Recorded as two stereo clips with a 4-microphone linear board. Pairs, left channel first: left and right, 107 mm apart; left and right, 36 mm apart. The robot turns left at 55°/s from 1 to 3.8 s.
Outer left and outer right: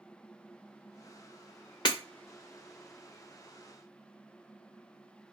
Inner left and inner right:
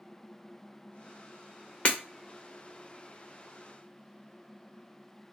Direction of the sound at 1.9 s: 45° left (ahead or behind).